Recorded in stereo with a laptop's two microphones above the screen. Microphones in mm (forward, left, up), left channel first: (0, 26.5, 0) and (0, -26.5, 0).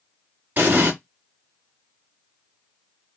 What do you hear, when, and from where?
0.6 s an explosion: 40° right (ahead or behind), 1.4 m